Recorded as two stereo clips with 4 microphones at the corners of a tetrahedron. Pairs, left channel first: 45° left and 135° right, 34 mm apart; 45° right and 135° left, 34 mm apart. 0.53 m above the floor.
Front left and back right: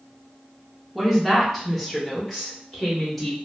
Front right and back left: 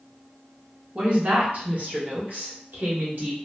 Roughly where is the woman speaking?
Behind left.